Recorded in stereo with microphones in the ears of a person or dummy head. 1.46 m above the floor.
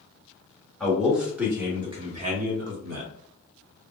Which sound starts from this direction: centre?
A man speaking, at 0.8 s.